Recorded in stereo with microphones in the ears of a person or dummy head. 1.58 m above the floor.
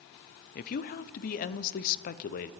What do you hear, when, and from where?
0.6 s a woman speaking: 50° left (ahead or behind), 0.7 m